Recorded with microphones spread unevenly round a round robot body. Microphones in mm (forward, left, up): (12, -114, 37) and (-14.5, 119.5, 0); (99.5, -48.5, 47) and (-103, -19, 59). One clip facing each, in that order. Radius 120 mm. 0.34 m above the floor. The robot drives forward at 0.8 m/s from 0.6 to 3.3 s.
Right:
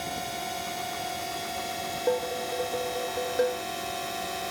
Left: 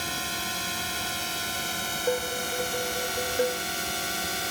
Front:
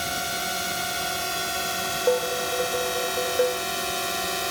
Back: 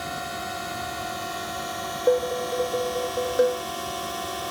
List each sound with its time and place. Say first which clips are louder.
0.0 s a drone: right 1 dB, front 1 dB; 35° left; by 4.5 s 45° left
2.1 s dishes clattering: right 1 dB, back 2 dB; 120° right; by 3.6 s 125° right